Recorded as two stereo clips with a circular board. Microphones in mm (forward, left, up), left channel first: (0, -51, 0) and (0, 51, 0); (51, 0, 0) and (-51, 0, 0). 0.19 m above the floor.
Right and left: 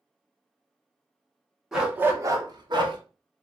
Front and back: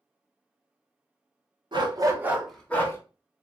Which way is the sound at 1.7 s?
175° left.